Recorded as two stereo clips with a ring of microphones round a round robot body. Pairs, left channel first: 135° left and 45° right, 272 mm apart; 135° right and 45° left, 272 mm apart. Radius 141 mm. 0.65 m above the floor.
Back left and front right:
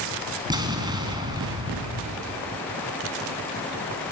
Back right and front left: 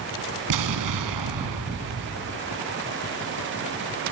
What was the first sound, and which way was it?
An explosion, 30° left.